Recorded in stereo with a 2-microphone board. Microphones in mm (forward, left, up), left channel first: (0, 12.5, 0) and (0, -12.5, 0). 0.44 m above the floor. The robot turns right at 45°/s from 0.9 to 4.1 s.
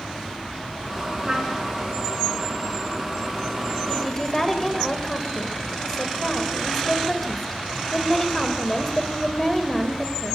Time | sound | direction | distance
1.2 | a trumpet | 25° right (ahead or behind) | 4.5 m
3.9 | a woman speaking | 5° left (ahead or behind) | 2 m